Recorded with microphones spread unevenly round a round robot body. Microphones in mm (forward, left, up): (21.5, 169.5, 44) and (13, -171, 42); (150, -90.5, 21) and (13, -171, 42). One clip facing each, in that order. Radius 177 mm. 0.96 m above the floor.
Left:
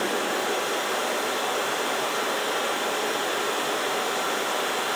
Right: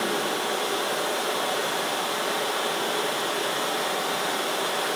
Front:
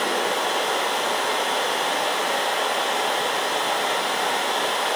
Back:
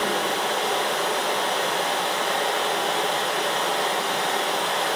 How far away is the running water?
About 8 m.